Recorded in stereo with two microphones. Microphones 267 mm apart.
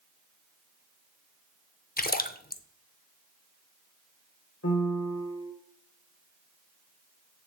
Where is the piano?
60° left (ahead or behind), 1.5 m.